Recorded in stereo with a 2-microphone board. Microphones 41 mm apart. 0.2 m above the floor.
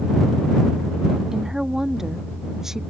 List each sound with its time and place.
1.3 s a woman speaking: 15° right (ahead or behind); by 2.8 s 10° right (ahead or behind)